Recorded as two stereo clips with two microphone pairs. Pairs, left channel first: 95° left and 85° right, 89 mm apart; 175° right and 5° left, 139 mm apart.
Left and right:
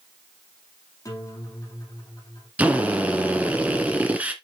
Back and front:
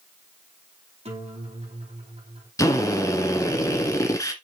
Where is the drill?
140° right, 1.7 m.